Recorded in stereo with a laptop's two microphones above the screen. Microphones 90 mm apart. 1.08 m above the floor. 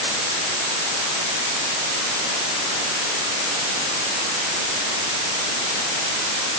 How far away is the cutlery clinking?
I don't hear cutlery clinking.